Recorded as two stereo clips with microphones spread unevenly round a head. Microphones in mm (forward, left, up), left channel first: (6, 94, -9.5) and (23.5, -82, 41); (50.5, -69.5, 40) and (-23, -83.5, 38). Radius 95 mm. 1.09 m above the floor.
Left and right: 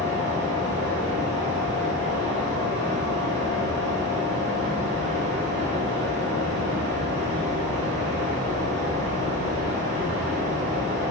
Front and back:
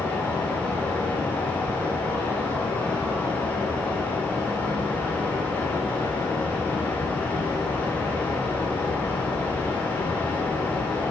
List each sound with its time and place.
0.0 s a fan: 55° right, 3 m